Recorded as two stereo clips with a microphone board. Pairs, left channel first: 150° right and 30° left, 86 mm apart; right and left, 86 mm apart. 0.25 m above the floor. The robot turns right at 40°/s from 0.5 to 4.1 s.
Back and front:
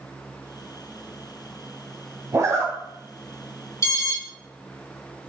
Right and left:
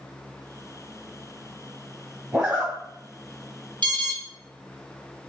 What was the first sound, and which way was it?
A zipper, 10° left.